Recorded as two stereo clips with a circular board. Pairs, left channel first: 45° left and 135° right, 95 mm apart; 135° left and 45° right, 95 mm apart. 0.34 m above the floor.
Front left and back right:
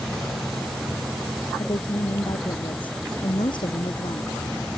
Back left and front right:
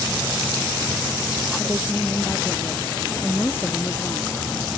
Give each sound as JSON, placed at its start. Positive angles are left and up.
{"t": 1.6, "sound": "a woman speaking", "azimuth_deg": 75}